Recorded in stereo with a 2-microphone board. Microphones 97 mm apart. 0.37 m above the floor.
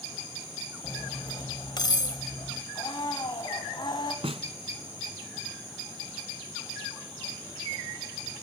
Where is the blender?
50° left (ahead or behind), 3 m.